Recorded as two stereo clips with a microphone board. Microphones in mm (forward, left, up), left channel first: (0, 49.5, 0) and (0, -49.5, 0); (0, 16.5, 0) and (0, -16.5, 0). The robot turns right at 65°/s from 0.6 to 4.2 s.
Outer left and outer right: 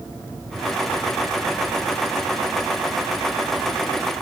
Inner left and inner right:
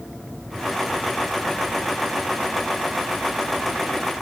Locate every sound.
Only background noise.